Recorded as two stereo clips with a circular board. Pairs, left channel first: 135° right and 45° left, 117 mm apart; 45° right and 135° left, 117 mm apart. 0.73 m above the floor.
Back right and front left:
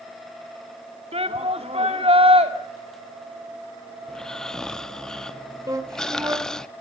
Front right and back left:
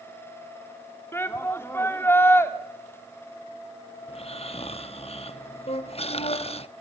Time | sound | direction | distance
1.1 | a shout | 20° left | 2.0 m
4.1 | snoring | 50° right | 0.8 m
5.7 | a flute | 15° right | 2.5 m